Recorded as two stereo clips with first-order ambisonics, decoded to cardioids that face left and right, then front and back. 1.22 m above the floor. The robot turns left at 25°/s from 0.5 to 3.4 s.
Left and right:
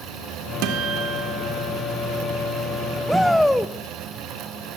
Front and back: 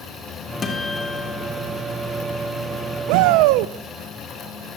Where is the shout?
Straight behind, 0.5 m; by 3.7 s 175° left, 0.5 m.